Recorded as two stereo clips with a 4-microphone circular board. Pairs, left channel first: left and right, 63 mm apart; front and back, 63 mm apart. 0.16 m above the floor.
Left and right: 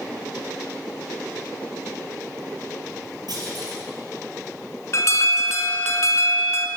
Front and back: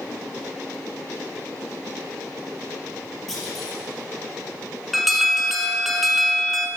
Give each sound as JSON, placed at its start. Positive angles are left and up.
{"t": 3.3, "sound": "a clunk", "azimuth_deg": -80, "distance_m": 3.5}
{"t": 4.9, "sound": "an alarm", "azimuth_deg": 95, "distance_m": 1.1}